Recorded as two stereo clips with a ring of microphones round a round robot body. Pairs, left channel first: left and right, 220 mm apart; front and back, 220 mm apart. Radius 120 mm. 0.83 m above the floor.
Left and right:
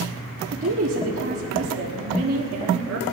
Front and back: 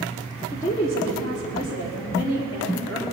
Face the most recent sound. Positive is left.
turn(degrees=-75)